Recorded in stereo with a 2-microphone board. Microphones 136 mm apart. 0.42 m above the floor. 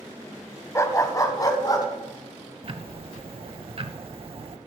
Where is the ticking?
45° right (ahead or behind), 0.6 m.